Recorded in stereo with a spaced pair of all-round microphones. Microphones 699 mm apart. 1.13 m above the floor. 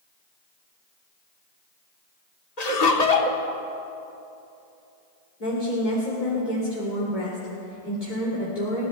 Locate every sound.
2.6 s laughter: 60° left (ahead or behind), 1.5 m
5.4 s a woman speaking: 80° left, 3 m